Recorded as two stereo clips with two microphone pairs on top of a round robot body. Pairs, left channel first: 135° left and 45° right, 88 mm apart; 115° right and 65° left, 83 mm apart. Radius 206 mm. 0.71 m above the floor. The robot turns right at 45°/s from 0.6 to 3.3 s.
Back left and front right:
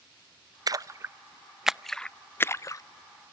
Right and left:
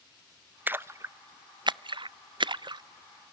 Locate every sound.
0.7 s a splash: 5° right, 0.5 m; by 2.8 s 90° left, 0.5 m